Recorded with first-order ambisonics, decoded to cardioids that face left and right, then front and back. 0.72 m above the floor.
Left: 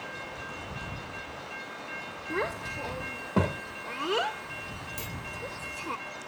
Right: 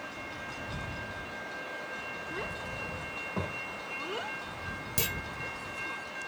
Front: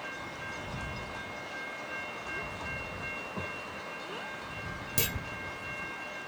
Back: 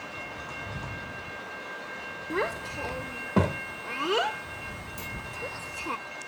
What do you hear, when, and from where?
2.3 s a child speaking: 150° left
5.0 s a clunk: 35° right